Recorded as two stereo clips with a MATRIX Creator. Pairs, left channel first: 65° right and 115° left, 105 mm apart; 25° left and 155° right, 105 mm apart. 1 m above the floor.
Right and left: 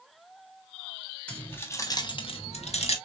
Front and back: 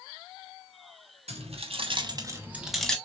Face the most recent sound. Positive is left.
turn(degrees=-60)